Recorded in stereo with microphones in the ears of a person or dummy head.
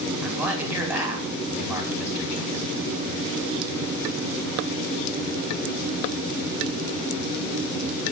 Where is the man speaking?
10° right (ahead or behind), 5 m.